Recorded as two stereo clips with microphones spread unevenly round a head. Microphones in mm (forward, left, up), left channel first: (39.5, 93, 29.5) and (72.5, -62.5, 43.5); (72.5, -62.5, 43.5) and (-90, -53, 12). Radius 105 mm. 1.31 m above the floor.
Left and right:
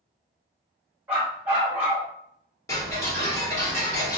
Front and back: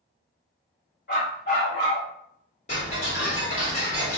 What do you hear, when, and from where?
1.1 s a dog barking: straight ahead, 1.5 m
2.7 s ticking: 35° left, 1.3 m